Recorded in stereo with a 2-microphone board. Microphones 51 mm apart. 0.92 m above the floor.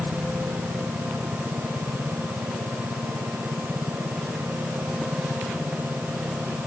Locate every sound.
Only background noise.